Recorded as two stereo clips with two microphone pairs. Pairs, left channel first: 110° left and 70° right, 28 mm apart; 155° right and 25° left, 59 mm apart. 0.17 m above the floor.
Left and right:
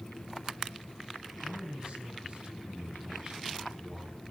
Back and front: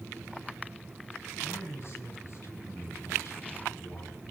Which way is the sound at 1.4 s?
115° right.